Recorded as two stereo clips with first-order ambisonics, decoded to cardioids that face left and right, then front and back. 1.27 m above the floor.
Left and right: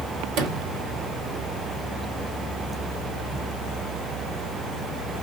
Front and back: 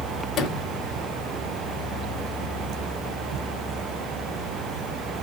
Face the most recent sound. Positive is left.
turn(degrees=-60)